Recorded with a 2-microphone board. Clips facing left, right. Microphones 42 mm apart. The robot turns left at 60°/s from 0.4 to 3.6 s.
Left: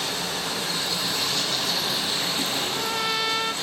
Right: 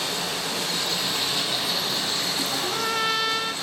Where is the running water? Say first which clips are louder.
Even; 95° right, 6.5 m; by 3.6 s 70° left, 6.5 m.